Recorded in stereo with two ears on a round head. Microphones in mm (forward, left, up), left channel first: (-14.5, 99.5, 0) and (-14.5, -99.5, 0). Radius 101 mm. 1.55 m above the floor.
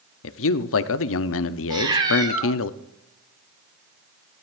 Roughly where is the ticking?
I don't hear ticking.